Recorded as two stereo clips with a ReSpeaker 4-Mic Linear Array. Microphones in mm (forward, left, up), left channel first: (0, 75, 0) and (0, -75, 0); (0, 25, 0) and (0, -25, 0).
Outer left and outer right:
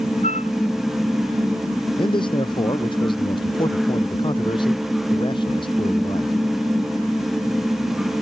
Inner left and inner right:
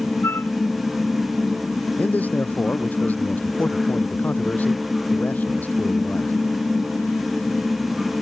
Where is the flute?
50° left (ahead or behind).